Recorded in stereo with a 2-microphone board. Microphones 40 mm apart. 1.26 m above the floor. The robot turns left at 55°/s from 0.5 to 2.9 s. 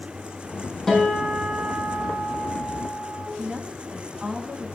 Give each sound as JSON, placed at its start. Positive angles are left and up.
{"t": 0.9, "sound": "a guitar", "azimuth_deg": 0, "distance_m": 6.5}
{"t": 3.4, "sound": "a woman speaking", "side_deg": -25, "distance_m": 2.5}